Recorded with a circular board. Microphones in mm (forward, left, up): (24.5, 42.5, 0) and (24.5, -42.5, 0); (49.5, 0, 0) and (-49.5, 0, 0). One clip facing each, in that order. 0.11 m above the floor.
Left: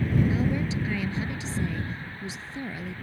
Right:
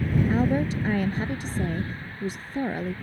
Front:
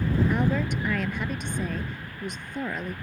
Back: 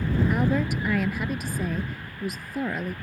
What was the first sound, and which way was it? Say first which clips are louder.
A woman speaking: right 4 dB, back 1 dB; 95° right.